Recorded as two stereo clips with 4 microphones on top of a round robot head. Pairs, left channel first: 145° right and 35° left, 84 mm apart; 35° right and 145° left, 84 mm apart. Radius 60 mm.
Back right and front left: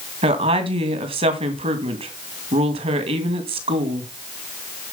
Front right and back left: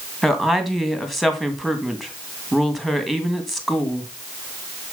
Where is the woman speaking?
55° left, 2 m.